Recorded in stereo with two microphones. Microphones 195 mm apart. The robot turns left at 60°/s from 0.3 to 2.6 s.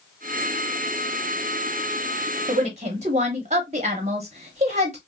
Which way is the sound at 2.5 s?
30° right (ahead or behind).